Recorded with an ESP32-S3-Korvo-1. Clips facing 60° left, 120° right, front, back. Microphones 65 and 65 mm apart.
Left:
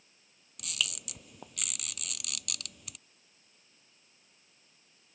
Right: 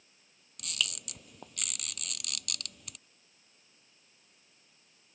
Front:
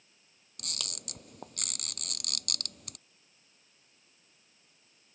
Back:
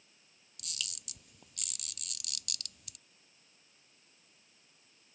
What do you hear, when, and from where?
0.6 s a camera shutter: 30° right